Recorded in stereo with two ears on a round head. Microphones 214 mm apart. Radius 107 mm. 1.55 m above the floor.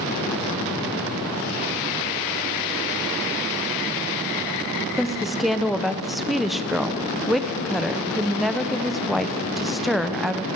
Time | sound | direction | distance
5.0 | a woman speaking | centre (ahead or behind) | 0.5 m